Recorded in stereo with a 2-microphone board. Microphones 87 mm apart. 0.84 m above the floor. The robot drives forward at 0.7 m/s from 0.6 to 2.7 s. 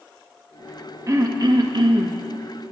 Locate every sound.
1.1 s throat clearing: 35° right (ahead or behind), 0.8 m; by 2.2 s 50° right (ahead or behind), 0.6 m